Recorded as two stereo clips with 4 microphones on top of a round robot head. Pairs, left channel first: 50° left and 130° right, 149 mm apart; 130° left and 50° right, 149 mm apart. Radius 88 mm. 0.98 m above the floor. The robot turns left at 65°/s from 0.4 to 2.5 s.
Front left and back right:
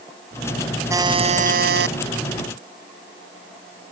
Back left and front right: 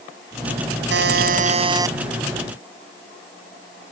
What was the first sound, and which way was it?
A buzzer, 60° right.